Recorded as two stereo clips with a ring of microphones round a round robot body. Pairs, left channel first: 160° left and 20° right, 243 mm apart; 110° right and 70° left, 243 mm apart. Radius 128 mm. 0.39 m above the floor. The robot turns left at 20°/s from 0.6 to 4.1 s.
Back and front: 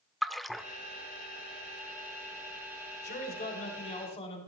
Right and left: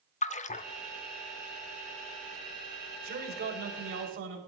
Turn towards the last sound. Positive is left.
turn(degrees=95)